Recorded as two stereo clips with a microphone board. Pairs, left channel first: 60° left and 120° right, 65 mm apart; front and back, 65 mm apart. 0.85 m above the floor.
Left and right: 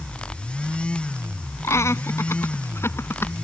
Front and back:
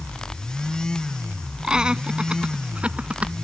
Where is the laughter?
105° left; by 3.4 s 110° left.